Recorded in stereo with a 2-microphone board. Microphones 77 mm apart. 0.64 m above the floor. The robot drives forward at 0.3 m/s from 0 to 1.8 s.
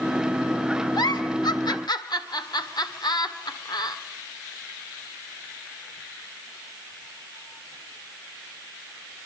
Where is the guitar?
No guitar in this recording.